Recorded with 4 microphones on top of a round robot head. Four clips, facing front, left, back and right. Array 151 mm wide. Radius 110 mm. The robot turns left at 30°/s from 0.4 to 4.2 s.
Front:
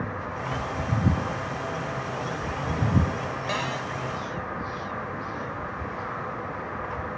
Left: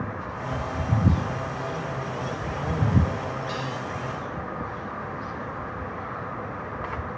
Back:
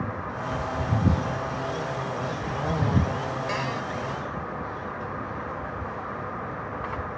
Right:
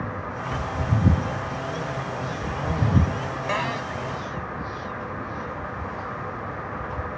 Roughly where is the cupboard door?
Right.